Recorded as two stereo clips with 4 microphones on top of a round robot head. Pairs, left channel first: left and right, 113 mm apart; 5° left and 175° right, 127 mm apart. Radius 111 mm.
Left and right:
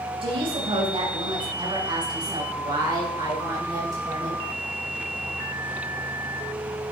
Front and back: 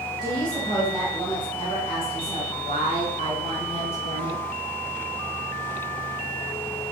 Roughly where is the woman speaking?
Ahead right.